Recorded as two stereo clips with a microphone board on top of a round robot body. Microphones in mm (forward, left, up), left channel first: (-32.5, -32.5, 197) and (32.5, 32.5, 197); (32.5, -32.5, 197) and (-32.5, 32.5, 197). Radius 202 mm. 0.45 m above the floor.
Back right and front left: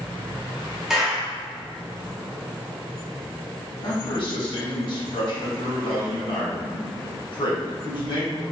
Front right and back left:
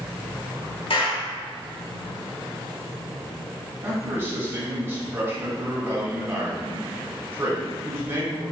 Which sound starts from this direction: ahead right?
A clap, at 0.9 s.